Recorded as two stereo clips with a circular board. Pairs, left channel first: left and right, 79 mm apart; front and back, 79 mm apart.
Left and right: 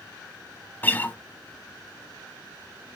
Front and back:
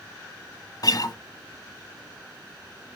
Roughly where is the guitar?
Ahead left.